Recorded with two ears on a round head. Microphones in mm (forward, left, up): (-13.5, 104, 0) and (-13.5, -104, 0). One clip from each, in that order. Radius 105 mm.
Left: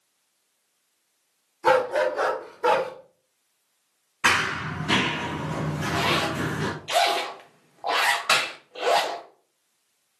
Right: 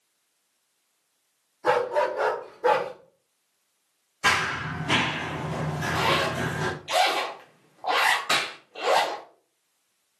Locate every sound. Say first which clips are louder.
1.6 s a dog barking: left 2 dB; 55° left (ahead or behind), 1.8 m; by 2.9 s 40° left (ahead or behind), 1.3 m
4.2 s running footsteps: left 1 dB; 15° left (ahead or behind), 1.6 m; by 6.7 s 10° right (ahead or behind), 1.5 m
5.8 s a zipper: even; 5° left (ahead or behind), 0.5 m
8.3 s a clap: left 3 dB; 30° left (ahead or behind), 1.2 m